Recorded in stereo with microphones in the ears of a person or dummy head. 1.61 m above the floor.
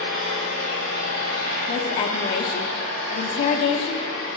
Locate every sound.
0.0 s an engine running: 75° right (ahead or behind), 1.7 m
1.7 s a woman speaking: 35° left (ahead or behind), 0.5 m